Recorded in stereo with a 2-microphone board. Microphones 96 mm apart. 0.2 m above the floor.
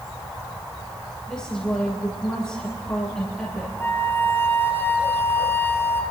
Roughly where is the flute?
Left.